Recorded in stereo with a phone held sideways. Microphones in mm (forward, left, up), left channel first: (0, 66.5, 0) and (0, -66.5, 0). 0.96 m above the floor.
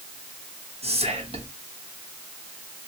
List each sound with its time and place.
0.8 s whispering: 50° right (ahead or behind), 1.2 m